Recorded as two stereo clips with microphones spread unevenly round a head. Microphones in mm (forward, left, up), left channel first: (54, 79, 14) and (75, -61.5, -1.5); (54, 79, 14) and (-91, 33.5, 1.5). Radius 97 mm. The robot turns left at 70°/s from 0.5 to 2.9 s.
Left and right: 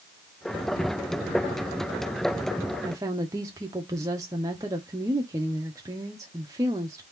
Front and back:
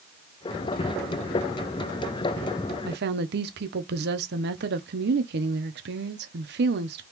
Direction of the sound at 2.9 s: 150° right.